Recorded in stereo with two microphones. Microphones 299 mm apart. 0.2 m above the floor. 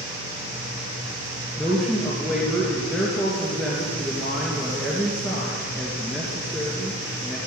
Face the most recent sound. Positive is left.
turn(degrees=0)  # may be behind; listen again after turning